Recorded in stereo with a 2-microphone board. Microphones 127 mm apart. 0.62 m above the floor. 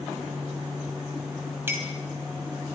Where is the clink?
20° right (ahead or behind), 3 m.